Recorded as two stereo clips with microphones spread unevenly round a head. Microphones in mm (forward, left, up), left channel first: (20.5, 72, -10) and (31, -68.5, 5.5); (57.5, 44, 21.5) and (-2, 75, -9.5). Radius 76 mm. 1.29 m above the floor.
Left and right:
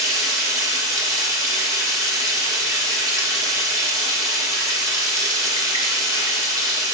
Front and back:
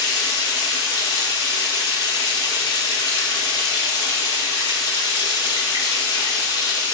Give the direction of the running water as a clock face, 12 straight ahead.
1 o'clock.